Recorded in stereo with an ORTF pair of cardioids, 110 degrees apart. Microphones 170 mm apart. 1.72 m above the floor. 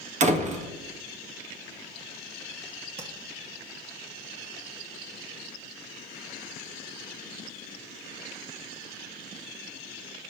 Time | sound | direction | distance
0.2 | a door slam | 45° right | 1.9 m
3.0 | tapping | 40° right | 2.5 m